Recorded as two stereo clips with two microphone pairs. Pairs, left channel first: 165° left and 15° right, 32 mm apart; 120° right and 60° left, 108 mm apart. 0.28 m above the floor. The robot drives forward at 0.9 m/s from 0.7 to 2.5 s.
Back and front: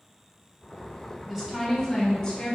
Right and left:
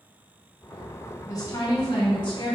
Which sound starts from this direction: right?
A woman speaking, at 1.3 s.